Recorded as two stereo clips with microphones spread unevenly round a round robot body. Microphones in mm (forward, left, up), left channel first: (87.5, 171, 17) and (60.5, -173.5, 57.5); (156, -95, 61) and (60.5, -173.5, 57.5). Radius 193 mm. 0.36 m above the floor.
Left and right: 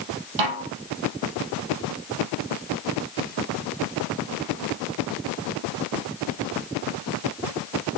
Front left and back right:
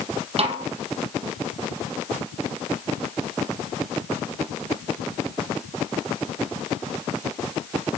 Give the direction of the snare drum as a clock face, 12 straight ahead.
3 o'clock.